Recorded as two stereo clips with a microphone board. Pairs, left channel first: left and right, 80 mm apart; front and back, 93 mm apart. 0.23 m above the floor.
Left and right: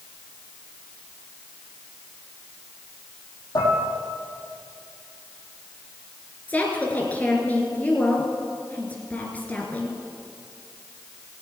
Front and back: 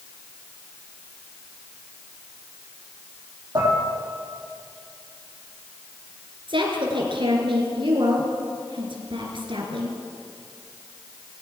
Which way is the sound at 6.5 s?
160° left.